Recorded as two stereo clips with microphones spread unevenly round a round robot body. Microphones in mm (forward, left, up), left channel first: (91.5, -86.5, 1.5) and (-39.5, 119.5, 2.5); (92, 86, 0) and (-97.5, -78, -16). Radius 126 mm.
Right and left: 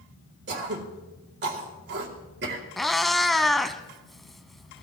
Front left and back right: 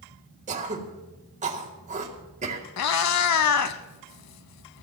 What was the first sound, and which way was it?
Throat clearing, 165° left.